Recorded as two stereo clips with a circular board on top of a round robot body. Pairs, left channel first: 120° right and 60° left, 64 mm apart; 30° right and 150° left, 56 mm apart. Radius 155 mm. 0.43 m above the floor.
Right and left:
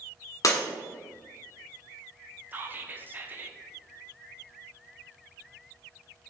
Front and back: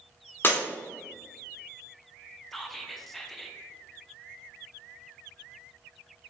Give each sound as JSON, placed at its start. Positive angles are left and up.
{"t": 0.4, "sound": "breaking glass", "azimuth_deg": -80, "distance_m": 1.1}
{"t": 2.5, "sound": "whispering", "azimuth_deg": 55, "distance_m": 0.9}